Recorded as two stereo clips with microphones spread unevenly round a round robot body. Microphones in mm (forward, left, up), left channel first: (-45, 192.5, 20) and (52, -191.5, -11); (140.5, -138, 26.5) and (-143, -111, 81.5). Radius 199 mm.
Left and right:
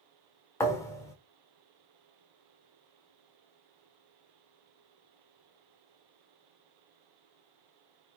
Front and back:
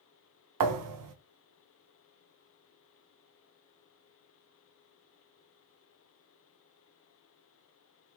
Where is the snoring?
I don't hear snoring.